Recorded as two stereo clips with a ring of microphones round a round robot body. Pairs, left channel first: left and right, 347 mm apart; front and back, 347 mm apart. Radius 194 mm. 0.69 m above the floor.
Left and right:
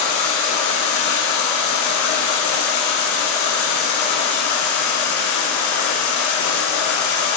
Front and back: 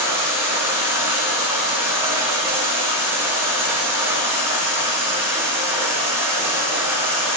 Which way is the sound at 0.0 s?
100° left.